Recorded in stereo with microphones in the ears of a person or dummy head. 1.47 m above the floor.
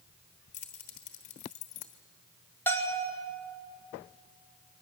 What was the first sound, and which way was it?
Keys jangling, 45° left (ahead or behind).